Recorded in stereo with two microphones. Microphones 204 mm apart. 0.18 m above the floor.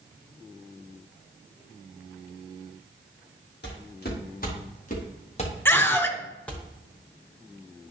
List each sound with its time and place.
3.6 s footsteps: 50° left (ahead or behind), 4.5 m; by 6.6 s centre (ahead or behind), 2.5 m
5.7 s a scream: 10° left (ahead or behind), 1.1 m